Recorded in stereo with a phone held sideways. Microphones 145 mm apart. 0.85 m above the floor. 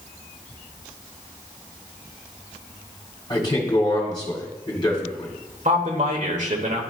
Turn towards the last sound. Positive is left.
turn(degrees=-60)  # may be behind; listen again after turning